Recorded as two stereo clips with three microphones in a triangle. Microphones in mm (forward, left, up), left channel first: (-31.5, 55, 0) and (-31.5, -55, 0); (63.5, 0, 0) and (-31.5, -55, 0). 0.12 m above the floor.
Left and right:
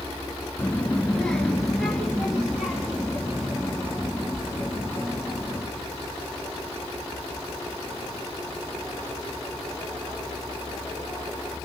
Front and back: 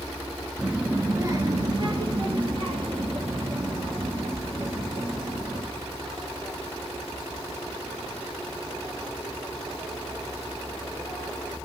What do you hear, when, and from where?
0.6 s a child speaking: 125° left, 0.7 m; by 5.6 s 170° right, 3.5 m